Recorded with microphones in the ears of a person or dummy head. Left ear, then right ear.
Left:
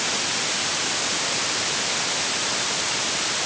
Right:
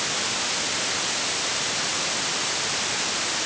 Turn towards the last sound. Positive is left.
No sound to turn to.